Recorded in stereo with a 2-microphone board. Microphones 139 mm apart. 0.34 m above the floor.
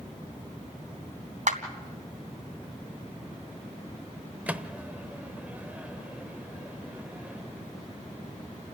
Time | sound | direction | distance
1.5 | a clap | 65° right (ahead or behind) | 2.5 m
4.5 | a microwave | 10° right (ahead or behind) | 0.9 m